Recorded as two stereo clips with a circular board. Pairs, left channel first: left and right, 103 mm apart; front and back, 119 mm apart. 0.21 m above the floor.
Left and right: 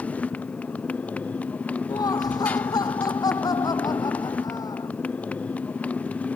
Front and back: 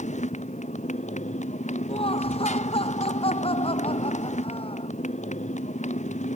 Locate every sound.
0.0 s a motorcycle: 15° left
1.9 s laughter: 40° left